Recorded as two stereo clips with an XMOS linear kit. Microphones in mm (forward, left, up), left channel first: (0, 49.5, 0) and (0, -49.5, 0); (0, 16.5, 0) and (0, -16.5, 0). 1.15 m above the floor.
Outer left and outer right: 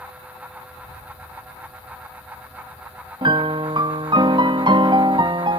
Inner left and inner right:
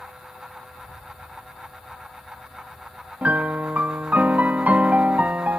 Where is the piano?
55° right (ahead or behind), 0.6 m.